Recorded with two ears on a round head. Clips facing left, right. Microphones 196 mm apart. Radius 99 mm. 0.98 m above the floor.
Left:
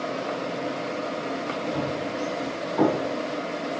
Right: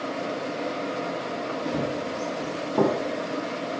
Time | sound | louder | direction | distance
1.6 | running footsteps | right 1 dB | 65° right (ahead or behind) | 2.5 m